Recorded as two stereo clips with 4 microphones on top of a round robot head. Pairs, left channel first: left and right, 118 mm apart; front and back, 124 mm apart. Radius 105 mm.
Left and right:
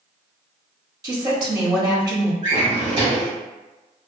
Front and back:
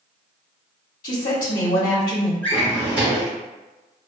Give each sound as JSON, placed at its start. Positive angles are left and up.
{"t": 1.0, "sound": "a woman speaking", "azimuth_deg": -40, "distance_m": 0.9}
{"t": 2.4, "sound": "a drawer", "azimuth_deg": -95, "distance_m": 1.7}